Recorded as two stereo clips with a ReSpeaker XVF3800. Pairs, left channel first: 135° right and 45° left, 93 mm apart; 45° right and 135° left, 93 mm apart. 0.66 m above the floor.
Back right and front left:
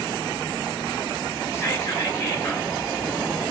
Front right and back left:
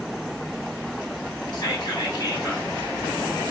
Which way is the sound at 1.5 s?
70° right.